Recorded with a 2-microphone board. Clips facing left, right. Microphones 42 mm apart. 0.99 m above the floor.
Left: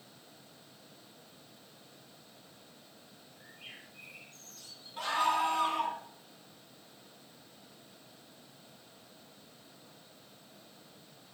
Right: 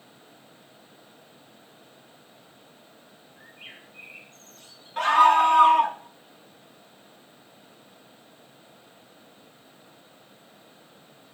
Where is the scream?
70° right (ahead or behind), 2.5 m.